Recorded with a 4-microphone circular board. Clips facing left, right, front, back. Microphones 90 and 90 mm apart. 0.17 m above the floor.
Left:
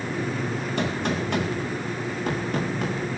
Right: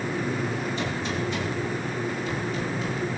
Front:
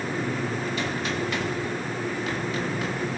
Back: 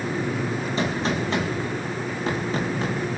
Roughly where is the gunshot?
Behind left.